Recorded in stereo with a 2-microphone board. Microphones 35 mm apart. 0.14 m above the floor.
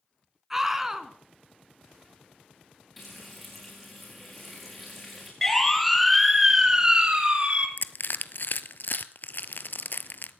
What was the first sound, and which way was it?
A scream, 10° right (ahead or behind).